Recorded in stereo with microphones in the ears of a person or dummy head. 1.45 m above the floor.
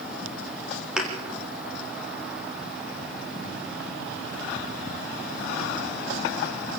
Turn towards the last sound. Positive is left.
turn(degrees=0)  # may be behind; listen again after turning